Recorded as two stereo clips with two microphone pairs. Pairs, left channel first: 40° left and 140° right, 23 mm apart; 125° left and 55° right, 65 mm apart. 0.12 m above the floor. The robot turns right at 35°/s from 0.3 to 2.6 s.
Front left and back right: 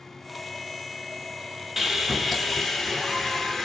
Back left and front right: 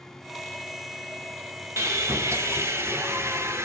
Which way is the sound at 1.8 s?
65° right.